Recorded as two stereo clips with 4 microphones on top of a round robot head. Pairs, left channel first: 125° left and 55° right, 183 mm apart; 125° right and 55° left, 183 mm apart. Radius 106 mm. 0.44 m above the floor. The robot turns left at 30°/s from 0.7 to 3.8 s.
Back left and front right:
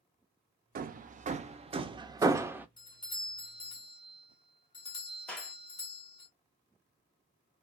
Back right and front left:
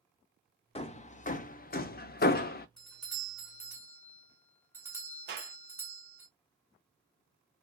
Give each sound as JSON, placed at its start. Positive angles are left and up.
{"t": 0.8, "sound": "hammering", "azimuth_deg": -75, "distance_m": 0.5}
{"t": 2.8, "sound": "a doorbell", "azimuth_deg": 150, "distance_m": 1.2}
{"t": 5.3, "sound": "a clap", "azimuth_deg": 40, "distance_m": 1.4}